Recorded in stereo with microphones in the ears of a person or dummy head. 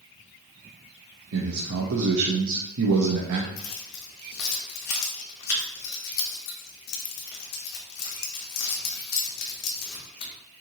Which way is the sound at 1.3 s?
70° right (ahead or behind).